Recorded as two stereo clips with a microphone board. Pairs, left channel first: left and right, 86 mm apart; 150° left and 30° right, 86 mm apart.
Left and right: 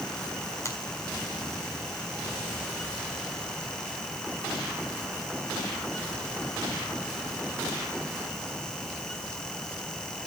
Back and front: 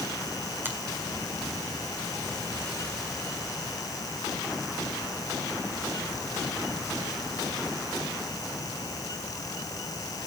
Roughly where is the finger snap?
Ahead left.